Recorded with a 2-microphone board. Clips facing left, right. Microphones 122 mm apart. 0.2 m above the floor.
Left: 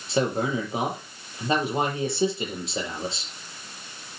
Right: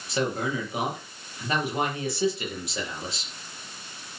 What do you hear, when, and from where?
0.1 s a man speaking: 25° left (ahead or behind), 6.5 m